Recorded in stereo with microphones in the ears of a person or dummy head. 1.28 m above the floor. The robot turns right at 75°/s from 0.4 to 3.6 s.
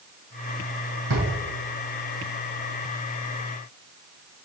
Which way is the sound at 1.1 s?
75° right (ahead or behind).